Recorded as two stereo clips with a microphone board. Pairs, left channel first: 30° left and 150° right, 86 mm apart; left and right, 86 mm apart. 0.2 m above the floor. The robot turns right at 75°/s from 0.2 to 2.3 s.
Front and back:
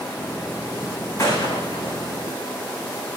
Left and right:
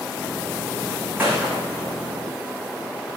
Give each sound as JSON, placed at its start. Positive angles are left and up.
{"t": 1.2, "sound": "a gunshot", "azimuth_deg": -20, "distance_m": 9.5}